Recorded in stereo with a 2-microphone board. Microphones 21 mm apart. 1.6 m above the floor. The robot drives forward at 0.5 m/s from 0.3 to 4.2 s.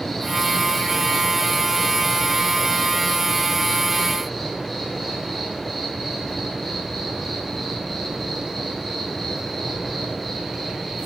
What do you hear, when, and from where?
0.0 s an insect: 20° left (ahead or behind), 1.0 m; by 11.1 s 5° left (ahead or behind), 3 m